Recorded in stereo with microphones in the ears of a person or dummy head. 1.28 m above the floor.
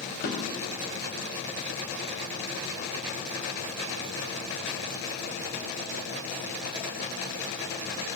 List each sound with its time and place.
0.2 s a drawer: 60° left (ahead or behind), 4.5 m